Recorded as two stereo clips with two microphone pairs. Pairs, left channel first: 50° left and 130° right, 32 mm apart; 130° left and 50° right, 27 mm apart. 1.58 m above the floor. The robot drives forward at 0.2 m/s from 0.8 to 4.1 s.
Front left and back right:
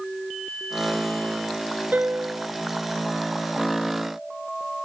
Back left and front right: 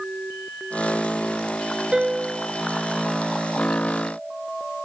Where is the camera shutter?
No camera shutter in this recording.